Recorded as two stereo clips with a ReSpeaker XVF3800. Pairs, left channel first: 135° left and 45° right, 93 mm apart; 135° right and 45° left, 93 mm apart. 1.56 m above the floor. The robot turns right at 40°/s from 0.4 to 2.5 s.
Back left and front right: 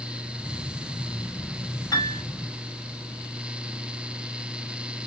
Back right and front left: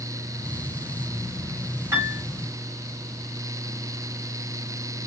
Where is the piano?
105° left, 2 m; by 2.2 s 115° left, 2 m.